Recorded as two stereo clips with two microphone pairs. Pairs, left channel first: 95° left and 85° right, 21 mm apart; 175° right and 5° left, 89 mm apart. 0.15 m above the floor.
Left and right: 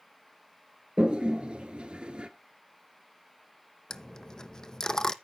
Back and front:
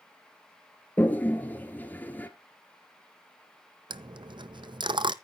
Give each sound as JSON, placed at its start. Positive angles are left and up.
{"t": 1.0, "sound": "a toilet flushing", "azimuth_deg": -105, "distance_m": 1.1}
{"t": 3.9, "sound": "a dropped coin", "azimuth_deg": 35, "distance_m": 0.5}